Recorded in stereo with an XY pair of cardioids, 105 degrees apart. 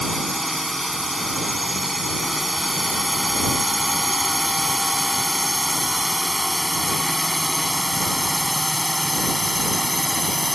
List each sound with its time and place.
0.0 s a drone: 5° right; by 10.6 s straight ahead